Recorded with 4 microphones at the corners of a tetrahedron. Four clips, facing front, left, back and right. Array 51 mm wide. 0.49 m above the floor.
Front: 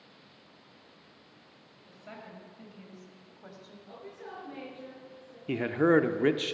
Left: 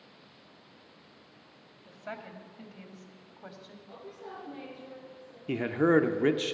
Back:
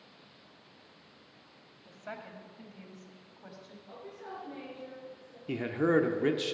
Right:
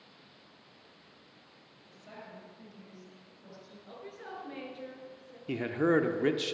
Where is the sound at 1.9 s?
120° left, 2 m; by 3.8 s 80° left, 2.5 m.